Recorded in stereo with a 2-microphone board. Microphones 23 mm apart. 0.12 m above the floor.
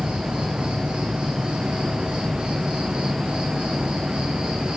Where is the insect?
60° right (ahead or behind), 1.6 m.